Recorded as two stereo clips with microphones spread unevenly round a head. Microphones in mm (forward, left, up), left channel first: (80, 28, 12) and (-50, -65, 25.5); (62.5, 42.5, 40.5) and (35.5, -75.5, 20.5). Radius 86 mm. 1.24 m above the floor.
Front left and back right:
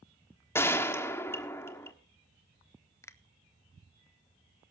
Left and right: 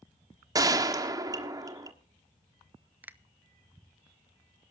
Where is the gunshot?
40° right, 1.4 m.